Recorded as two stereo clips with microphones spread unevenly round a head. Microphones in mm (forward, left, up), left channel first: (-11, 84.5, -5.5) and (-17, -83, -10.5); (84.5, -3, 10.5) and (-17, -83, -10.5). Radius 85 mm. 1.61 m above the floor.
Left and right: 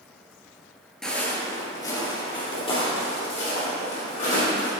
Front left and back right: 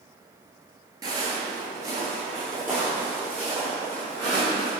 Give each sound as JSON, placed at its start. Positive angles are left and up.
{"t": 1.0, "sound": "footsteps", "azimuth_deg": 170, "distance_m": 1.7}